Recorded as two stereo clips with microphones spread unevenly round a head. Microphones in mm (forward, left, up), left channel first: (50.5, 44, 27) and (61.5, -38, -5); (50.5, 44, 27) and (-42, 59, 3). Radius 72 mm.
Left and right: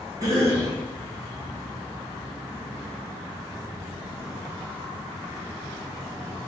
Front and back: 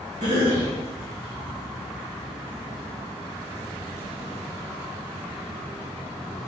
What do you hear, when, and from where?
0.2 s a cough: 135° right, 1.2 m